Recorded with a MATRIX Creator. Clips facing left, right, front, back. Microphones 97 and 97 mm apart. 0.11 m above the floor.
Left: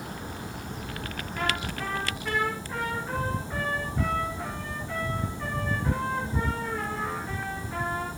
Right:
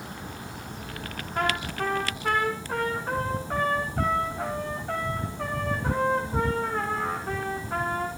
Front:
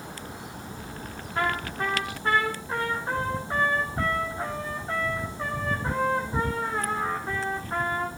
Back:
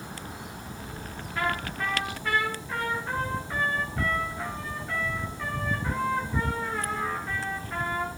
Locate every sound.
1.4 s a trumpet: 60° right, 5 m